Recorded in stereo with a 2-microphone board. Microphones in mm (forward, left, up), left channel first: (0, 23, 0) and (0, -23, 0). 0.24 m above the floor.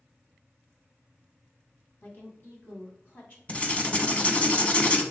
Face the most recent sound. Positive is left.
turn(degrees=30)  # may be behind; listen again after turning